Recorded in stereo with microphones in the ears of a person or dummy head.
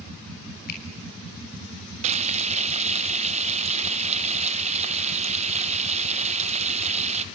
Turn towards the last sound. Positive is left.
turn(degrees=-35)  # may be behind; listen again after turning